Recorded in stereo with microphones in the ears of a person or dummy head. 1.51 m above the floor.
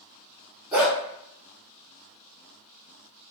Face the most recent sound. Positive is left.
turn(degrees=-5)  # may be behind; listen again after turning